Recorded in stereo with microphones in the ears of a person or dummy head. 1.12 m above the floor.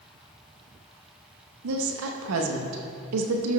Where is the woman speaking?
80° right, 1.0 m.